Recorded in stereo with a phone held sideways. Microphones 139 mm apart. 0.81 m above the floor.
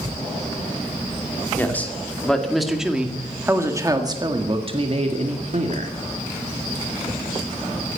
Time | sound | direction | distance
1.6 | a man speaking | 15° left (ahead or behind) | 2.5 m